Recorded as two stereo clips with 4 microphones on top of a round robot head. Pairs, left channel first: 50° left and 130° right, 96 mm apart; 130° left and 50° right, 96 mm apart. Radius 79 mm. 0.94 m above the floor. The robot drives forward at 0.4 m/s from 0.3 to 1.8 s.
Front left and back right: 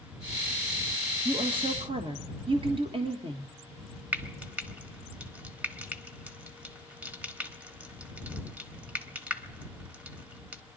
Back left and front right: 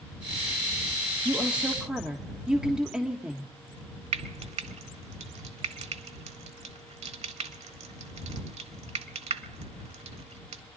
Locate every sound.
1.2 s a woman speaking: 125° right, 1.4 m; by 3.5 s 130° right, 1.5 m
4.1 s frying: 55° right, 1.2 m